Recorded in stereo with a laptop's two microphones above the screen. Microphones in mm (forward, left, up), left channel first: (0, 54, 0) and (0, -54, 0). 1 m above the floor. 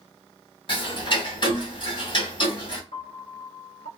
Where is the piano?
75° left (ahead or behind), 1.1 m.